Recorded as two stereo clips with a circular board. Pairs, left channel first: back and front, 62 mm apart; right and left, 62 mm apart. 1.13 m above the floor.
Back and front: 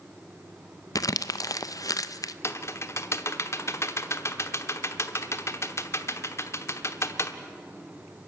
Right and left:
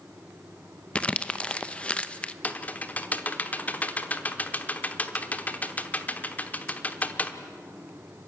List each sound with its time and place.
0.9 s crumpling: 160° right, 0.6 m
2.4 s typing on a keyboard: 150° right, 1.1 m